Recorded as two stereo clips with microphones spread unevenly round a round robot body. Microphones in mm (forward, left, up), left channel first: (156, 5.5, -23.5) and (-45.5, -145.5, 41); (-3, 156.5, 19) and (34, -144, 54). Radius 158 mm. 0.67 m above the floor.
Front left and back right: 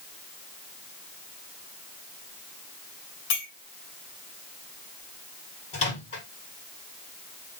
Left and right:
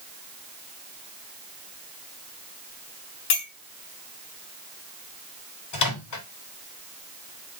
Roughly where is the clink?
Left.